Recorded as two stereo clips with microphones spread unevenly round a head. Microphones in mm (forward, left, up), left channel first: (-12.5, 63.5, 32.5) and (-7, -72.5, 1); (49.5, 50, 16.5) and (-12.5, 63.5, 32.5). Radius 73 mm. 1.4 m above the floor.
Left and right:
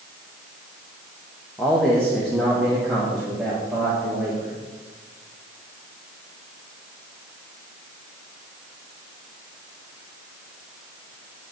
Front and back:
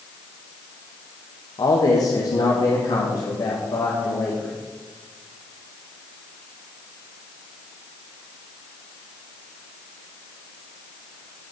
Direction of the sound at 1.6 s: 10° left.